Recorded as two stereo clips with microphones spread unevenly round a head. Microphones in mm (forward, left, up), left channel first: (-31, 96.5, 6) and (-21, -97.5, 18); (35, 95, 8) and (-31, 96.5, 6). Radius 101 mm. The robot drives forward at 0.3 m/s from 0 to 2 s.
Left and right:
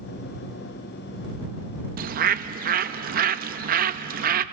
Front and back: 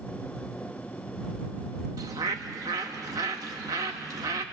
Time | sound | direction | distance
2.0 | a bird | 125° right | 0.6 m